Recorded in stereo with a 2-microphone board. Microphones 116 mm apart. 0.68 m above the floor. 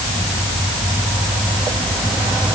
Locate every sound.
Only background noise.